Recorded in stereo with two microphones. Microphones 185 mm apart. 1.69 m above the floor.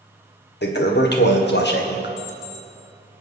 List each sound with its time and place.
0.6 s a toilet flushing: 65° left (ahead or behind), 1.3 m
2.2 s an alarm clock: 20° right (ahead or behind), 5 m